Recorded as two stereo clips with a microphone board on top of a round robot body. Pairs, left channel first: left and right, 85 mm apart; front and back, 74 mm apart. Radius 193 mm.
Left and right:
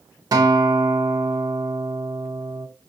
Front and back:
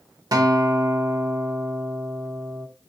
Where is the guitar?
140° right, 0.7 m.